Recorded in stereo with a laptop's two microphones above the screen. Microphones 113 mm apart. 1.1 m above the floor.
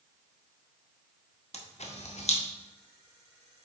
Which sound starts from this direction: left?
A camera shutter, at 1.5 s.